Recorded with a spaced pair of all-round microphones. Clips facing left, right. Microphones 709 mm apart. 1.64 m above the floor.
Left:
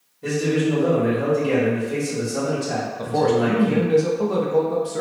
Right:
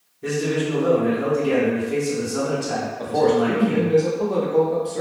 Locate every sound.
0.2 s a man speaking: centre (ahead or behind), 1.3 m
3.0 s a man speaking: 45° left (ahead or behind), 0.5 m